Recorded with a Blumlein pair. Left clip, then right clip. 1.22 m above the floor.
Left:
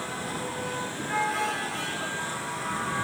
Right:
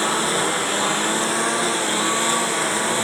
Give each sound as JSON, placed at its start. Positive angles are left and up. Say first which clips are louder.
{"t": 0.0, "sound": "a lawn mower", "louder": "right 13 dB", "azimuth_deg": -35}